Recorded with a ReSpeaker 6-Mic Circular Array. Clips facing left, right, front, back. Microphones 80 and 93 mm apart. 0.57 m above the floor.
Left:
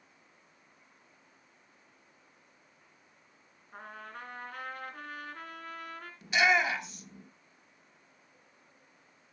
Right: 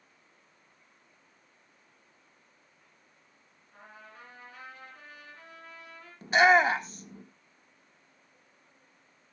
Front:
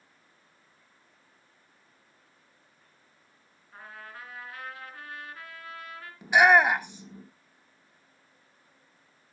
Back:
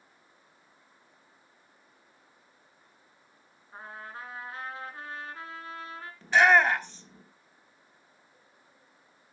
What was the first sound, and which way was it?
A trumpet, 120° left.